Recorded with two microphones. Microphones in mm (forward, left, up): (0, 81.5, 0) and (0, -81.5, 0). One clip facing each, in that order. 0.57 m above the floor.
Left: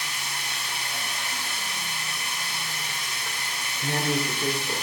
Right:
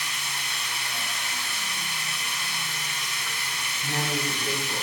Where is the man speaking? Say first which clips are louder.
Left 3 dB; 60° left (ahead or behind), 1.8 m.